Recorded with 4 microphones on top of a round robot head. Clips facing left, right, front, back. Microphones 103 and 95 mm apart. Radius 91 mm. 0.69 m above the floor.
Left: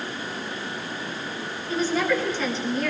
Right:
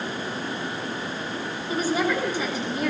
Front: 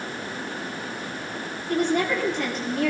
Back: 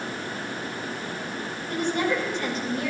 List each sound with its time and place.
1.7 s a woman speaking: 10° right, 9.5 m